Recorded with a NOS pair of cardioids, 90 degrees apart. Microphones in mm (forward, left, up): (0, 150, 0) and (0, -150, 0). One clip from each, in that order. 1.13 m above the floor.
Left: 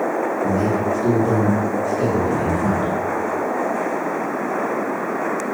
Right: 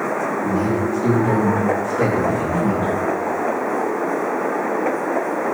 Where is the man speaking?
20° right, 1.8 m; by 2.9 s 35° left, 2.5 m.